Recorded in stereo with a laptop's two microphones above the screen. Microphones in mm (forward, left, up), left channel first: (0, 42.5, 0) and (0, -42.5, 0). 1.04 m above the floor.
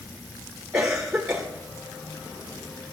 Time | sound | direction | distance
0.7 | a cough | 30° right (ahead or behind) | 1.2 m